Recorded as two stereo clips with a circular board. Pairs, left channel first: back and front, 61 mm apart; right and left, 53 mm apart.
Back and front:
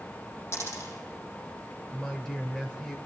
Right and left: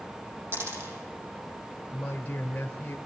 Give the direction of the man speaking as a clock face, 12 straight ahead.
4 o'clock.